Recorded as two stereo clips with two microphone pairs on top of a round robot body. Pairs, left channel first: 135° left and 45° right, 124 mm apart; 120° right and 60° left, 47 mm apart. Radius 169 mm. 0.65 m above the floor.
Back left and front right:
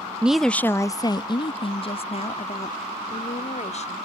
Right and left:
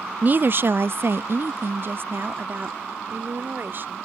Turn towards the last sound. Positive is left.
turn(degrees=105)